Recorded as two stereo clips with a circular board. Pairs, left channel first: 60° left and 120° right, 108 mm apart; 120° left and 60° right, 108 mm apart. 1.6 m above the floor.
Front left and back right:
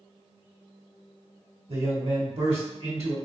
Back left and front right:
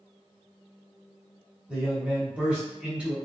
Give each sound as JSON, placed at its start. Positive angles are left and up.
{"t": 1.7, "sound": "a man speaking", "azimuth_deg": -140, "distance_m": 1.6}